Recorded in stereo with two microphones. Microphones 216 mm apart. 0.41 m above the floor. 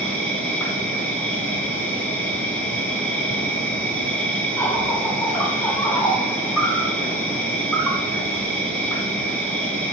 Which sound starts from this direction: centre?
An insect, at 0.0 s.